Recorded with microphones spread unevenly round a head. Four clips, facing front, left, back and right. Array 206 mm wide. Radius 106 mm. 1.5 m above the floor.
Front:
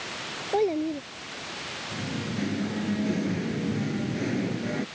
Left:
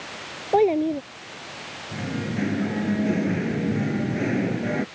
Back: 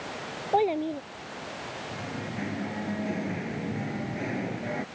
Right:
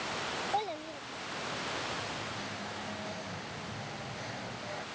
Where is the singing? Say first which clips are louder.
Left 10 dB, front 5 dB; 80° left.